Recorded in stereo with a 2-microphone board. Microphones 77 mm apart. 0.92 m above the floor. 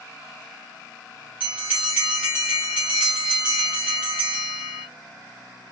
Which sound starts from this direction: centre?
A bell, at 1.4 s.